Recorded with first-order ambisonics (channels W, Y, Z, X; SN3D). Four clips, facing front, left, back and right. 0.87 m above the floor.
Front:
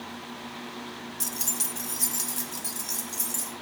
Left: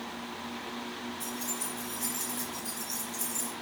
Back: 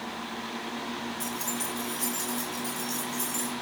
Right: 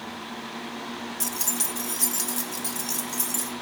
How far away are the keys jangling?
About 0.5 m.